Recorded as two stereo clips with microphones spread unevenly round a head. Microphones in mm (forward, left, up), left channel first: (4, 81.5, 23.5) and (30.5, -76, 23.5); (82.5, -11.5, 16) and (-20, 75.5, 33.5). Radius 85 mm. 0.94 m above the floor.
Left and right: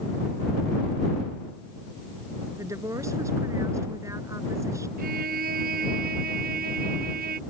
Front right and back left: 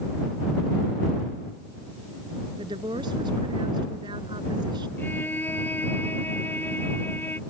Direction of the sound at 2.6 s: 155° right.